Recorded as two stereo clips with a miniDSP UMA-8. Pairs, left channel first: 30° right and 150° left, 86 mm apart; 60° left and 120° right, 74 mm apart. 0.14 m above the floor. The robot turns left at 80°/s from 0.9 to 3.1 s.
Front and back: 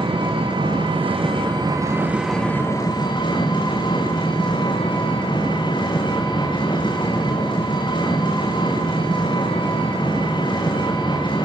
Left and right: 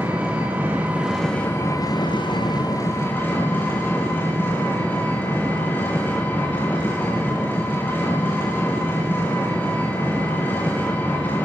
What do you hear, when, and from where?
0.0 s an engine running: 170° left, 8 m; by 11.5 s 5° right, 8 m